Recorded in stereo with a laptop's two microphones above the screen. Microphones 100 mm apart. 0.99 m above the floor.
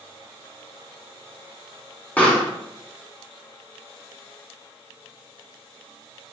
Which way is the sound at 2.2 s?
15° left (ahead or behind).